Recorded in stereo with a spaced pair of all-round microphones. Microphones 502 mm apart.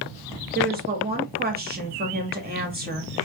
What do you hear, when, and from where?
0.6 s a woman speaking: 20° right (ahead or behind), 0.7 m